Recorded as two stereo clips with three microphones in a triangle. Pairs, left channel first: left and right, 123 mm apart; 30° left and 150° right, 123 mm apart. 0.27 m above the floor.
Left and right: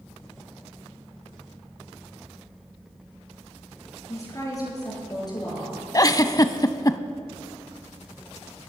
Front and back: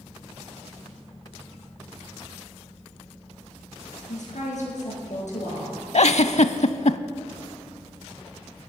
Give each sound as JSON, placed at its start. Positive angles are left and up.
{"t": 4.1, "sound": "a woman speaking", "azimuth_deg": 25, "distance_m": 5.5}
{"t": 5.9, "sound": "a giggle", "azimuth_deg": 35, "distance_m": 0.5}